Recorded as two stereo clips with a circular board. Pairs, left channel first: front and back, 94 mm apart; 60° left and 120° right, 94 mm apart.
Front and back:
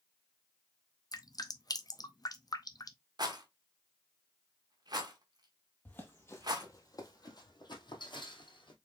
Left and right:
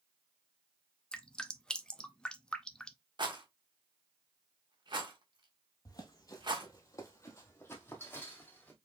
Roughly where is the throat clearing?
No throat clearing in this recording.